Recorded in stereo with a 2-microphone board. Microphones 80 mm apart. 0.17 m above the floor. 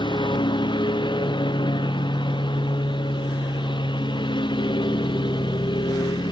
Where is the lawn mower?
80° left.